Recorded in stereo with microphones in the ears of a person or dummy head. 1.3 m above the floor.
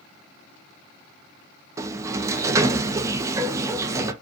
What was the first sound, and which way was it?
A sliding door, 20° right (ahead or behind).